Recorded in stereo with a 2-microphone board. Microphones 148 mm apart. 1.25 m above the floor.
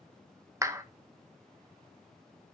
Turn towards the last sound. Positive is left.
turn(degrees=-20)  # may be behind; listen again after turning